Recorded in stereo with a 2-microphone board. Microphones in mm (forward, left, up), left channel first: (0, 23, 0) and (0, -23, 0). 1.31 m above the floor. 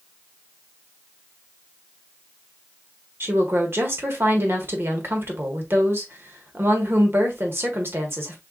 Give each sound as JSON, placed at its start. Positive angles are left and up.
{"t": 3.2, "sound": "a woman speaking", "side_deg": -50, "distance_m": 1.5}